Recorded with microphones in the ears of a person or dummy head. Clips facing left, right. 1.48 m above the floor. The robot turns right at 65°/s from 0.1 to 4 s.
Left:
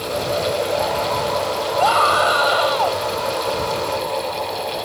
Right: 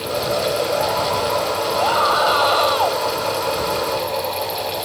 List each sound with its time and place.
1.8 s a scream: 120° left; by 3.0 s 160° right